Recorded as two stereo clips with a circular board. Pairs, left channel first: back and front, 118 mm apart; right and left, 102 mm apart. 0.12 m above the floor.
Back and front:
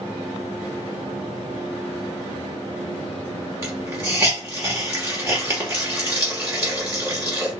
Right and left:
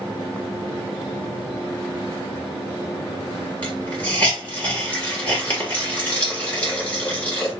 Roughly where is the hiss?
Ahead right.